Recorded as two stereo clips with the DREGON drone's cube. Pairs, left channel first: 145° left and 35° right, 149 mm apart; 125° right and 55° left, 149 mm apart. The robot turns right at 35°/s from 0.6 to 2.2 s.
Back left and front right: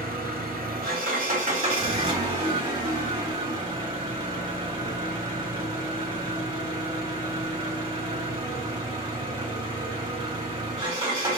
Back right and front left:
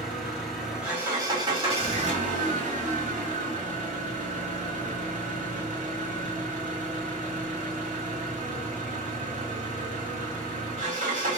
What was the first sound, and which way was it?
An engine running, 35° right.